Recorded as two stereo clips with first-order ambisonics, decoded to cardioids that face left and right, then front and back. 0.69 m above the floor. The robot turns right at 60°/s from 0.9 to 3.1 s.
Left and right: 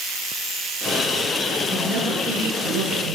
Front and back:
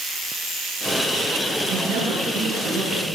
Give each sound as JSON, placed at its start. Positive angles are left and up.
{"t": 1.7, "sound": "a woman speaking", "azimuth_deg": 175, "distance_m": 9.0}